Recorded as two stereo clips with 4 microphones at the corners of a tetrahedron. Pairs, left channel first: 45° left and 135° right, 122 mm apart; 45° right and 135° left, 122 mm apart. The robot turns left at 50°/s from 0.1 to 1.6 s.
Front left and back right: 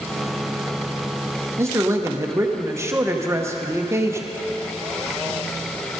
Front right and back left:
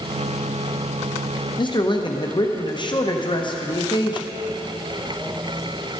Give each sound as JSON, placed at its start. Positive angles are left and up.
{"t": 1.6, "sound": "a man speaking", "azimuth_deg": -75, "distance_m": 0.9}